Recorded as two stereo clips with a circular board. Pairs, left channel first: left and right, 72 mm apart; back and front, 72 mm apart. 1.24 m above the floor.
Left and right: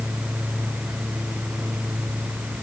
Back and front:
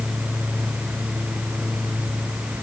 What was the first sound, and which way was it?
Only background noise.